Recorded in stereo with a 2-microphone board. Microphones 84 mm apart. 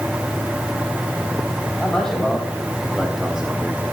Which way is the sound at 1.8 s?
10° left (ahead or behind).